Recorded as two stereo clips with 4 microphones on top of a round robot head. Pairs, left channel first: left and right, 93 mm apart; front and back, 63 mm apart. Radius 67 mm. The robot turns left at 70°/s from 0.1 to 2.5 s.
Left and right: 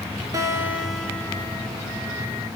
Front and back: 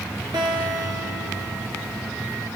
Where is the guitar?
140° right, 1.6 m; by 2.5 s 70° left, 1.6 m.